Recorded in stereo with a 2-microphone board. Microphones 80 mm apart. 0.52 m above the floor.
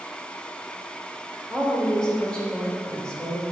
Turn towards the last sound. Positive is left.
turn(degrees=10)  # may be behind; listen again after turning